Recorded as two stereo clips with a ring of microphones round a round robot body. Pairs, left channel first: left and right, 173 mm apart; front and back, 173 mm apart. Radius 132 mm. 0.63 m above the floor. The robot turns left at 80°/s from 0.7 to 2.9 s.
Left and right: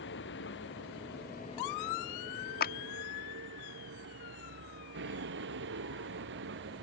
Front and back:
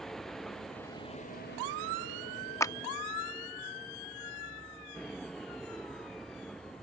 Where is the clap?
75° left; by 2.8 s 60° left.